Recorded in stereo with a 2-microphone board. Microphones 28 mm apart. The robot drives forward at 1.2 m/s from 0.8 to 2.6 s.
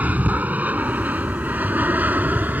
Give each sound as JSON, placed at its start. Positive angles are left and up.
{"t": 0.0, "sound": "an aircraft", "side_deg": -60}